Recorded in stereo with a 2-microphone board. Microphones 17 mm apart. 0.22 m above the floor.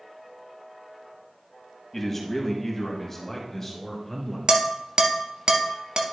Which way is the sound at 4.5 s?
50° right (ahead or behind).